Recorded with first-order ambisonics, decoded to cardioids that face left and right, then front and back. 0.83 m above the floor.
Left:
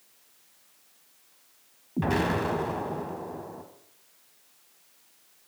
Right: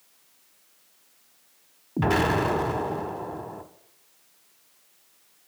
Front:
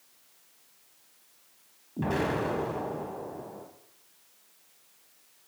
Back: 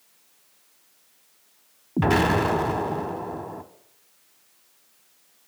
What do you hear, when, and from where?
2.0 s an explosion: 155° right, 0.9 m